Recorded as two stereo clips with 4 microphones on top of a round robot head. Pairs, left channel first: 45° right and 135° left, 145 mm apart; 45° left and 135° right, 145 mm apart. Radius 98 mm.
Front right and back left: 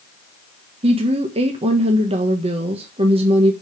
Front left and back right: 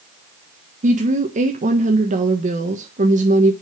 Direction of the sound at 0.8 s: 175° right.